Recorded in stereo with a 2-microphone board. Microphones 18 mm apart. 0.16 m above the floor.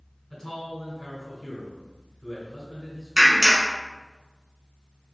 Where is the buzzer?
No buzzer in this recording.